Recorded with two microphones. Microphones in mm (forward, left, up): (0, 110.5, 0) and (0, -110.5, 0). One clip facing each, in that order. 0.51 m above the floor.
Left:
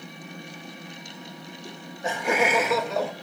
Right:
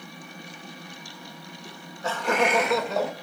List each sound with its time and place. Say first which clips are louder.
1.6 s laughter: left 1 dB; 30° left (ahead or behind), 0.9 m; by 3.1 s 5° right (ahead or behind), 1.5 m